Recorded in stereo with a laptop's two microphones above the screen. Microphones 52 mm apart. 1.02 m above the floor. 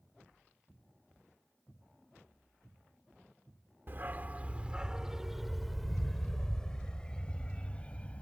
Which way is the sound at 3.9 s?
45° right (ahead or behind).